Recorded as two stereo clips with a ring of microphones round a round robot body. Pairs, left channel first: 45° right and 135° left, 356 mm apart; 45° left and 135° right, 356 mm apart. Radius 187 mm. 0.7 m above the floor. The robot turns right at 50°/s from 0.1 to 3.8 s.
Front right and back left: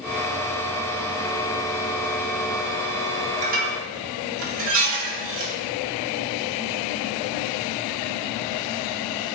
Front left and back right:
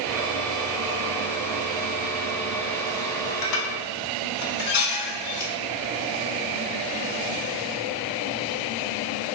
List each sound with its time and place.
3.4 s dishes clattering: 65° left, 0.6 m; by 5.5 s 85° left, 0.6 m